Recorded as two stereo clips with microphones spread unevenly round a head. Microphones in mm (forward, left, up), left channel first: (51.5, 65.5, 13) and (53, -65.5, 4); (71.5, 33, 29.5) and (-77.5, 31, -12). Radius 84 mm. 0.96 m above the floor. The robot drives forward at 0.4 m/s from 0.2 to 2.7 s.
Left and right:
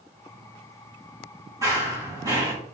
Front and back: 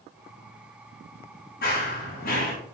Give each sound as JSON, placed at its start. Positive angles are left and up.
{"t": 1.6, "sound": "running footsteps", "azimuth_deg": -25, "distance_m": 4.0}